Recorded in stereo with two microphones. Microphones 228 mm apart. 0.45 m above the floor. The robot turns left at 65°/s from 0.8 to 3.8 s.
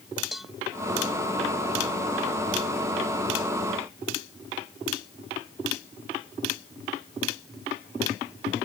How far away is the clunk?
No clunk in this recording.